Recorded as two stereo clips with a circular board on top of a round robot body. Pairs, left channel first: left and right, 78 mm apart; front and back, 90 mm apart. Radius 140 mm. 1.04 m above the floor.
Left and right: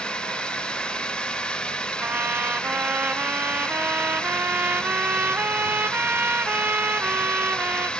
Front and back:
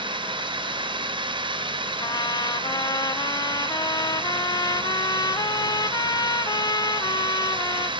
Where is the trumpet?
30° right.